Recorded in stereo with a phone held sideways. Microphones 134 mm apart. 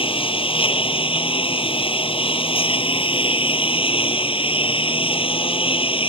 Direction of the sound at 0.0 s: 45° left (ahead or behind).